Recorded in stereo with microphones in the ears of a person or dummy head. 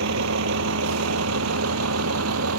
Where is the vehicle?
70° right (ahead or behind); by 2.6 s 85° right.